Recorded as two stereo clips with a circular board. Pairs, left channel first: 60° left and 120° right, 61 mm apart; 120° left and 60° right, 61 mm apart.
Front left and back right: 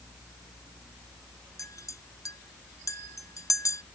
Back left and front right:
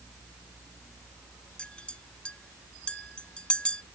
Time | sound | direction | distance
1.6 | a clink | 50° left | ?